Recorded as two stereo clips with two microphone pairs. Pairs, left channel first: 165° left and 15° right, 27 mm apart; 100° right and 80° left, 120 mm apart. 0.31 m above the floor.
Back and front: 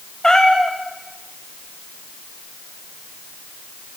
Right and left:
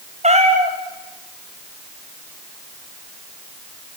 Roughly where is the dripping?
I don't hear dripping.